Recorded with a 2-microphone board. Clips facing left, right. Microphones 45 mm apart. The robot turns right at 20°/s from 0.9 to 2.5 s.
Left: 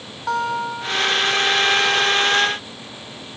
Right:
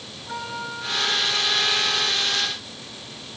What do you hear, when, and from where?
0.3 s a guitar: 80° left, 3.5 m; by 1.2 s 75° left (ahead or behind), 3.5 m